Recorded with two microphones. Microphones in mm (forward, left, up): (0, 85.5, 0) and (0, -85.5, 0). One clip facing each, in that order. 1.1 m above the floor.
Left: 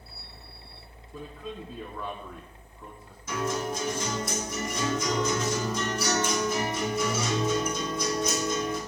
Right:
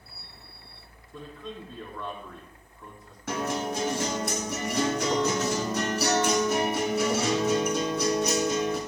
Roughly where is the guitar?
Right.